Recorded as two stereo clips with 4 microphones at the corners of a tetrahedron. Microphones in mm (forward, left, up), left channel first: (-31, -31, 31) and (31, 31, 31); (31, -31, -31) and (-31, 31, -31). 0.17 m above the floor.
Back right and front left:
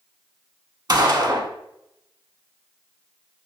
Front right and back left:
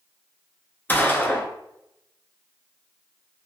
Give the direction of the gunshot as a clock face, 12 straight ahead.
11 o'clock.